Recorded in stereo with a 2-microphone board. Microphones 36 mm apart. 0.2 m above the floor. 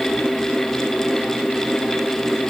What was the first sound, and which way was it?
Only background noise.